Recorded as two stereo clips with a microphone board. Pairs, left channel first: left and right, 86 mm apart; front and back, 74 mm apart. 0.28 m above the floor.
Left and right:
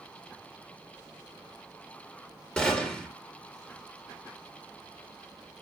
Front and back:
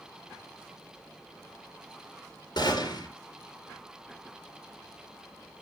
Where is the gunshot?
15° left, 3.5 m.